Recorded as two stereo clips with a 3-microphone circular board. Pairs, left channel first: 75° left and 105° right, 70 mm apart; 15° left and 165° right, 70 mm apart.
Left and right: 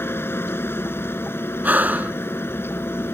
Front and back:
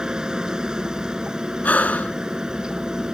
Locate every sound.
0.0 s a helicopter: 120° left
1.6 s breathing: 45° right